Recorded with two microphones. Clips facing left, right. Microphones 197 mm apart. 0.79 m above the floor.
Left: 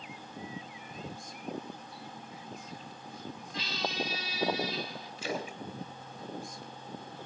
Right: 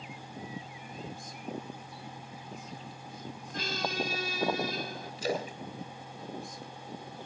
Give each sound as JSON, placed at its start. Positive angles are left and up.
{"t": 3.5, "sound": "a squeak", "side_deg": -50, "distance_m": 0.5}
{"t": 5.2, "sound": "a splash", "side_deg": -40, "distance_m": 3.0}